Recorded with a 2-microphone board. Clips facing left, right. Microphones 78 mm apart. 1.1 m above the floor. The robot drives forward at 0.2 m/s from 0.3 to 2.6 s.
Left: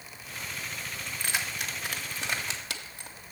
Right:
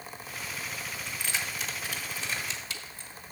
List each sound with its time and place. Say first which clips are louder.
1.1 s keys jangling: left 2 dB; 55° left (ahead or behind), 1.2 m; by 3.1 s 65° left (ahead or behind), 1.1 m